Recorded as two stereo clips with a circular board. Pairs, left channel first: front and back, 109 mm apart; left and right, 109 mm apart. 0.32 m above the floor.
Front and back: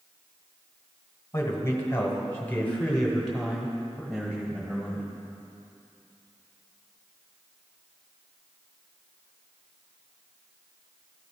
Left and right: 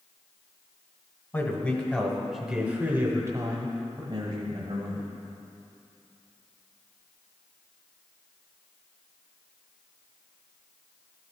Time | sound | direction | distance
1.3 | a man speaking | 45° left | 1.4 m